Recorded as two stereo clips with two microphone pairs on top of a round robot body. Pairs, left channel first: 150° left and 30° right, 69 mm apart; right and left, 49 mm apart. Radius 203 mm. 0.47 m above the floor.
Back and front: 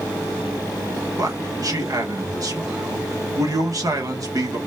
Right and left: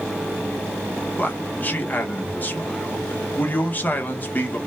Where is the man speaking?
45° right, 1.5 m.